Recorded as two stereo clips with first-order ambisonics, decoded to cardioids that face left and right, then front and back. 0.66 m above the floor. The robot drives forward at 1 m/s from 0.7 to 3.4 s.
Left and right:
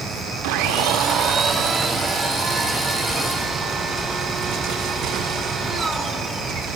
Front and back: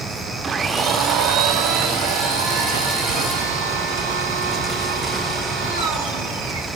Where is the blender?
115° right, 0.6 m; by 6.7 s 170° right, 3 m.